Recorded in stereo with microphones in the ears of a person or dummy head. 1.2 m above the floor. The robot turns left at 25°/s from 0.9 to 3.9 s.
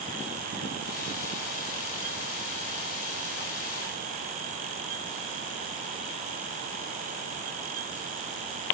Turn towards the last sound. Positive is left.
No sound to turn to.